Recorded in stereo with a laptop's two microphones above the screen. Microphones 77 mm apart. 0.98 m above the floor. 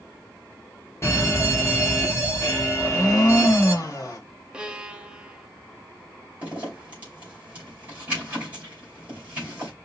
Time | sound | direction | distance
1.0 | a fire alarm | 35° left (ahead or behind) | 1.2 m
2.8 | a blender | 45° left (ahead or behind) | 1.1 m
4.5 | a violin | 10° right (ahead or behind) | 0.5 m
6.4 | a zipper | 20° right (ahead or behind) | 2.5 m